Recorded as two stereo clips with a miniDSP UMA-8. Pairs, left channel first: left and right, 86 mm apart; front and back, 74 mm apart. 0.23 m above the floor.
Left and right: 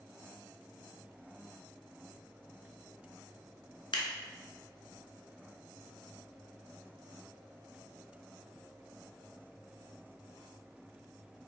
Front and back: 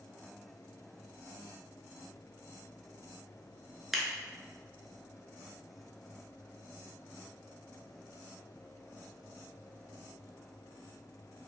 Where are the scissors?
90° left, 0.6 m.